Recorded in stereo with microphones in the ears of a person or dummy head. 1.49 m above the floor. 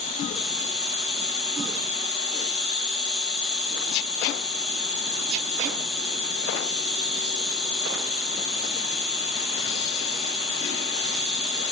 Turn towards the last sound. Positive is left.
turn(degrees=10)  # may be behind; listen again after turning